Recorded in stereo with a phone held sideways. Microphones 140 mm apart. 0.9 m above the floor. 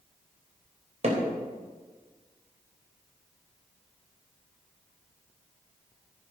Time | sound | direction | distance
1.0 | hammering | 55° right (ahead or behind) | 3.5 m